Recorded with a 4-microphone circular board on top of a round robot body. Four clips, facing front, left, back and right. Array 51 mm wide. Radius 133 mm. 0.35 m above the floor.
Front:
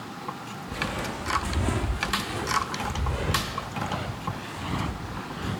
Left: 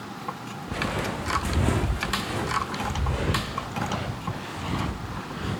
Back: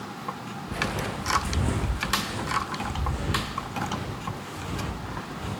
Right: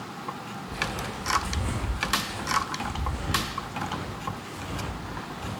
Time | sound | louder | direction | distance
0.7 | footsteps | left 4 dB, back 1 dB | 110° left | 2.5 m